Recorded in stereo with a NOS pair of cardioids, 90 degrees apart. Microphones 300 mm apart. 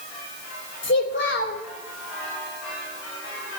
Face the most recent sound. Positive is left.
turn(degrees=40)